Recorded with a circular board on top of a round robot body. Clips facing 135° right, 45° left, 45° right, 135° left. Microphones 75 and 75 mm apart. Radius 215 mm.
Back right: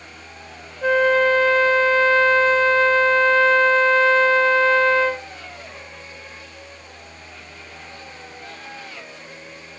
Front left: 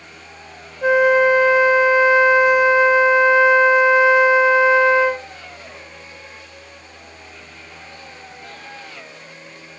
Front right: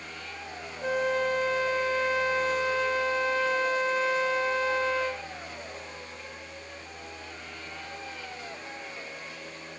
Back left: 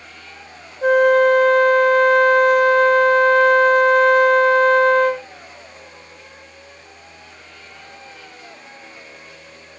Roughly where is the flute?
Behind left.